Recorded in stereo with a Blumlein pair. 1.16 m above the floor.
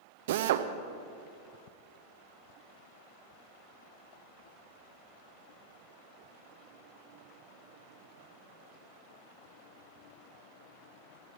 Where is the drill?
55° right, 0.8 m.